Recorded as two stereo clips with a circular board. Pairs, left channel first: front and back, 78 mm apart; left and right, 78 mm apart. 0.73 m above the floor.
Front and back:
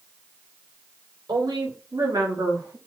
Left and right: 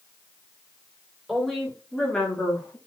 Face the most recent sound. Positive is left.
turn(degrees=135)